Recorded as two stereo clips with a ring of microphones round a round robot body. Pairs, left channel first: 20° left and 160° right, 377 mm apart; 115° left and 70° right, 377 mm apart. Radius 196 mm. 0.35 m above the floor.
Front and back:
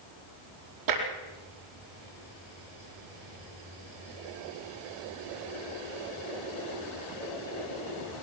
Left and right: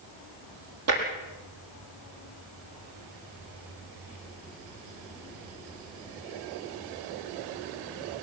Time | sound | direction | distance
0.9 | tapping | 120° right | 4.5 m